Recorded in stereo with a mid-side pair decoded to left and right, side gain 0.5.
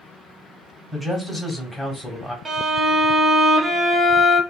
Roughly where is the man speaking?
Ahead.